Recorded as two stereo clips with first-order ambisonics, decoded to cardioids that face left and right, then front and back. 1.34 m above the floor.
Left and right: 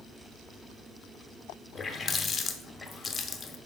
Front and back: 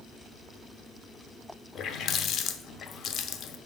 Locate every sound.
1.8 s a running tap: 25° left, 0.6 m